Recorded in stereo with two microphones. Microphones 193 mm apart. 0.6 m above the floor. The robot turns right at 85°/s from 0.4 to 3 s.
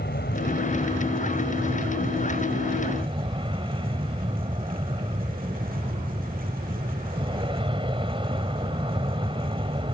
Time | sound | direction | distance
0.0 | an aircraft | 110° left | ?